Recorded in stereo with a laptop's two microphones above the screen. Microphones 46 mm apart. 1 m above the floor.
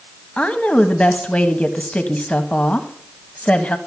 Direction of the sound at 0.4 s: 30° left (ahead or behind).